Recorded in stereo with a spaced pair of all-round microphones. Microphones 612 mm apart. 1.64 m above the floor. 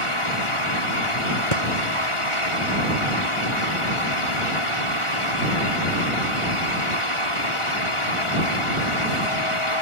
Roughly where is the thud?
Left.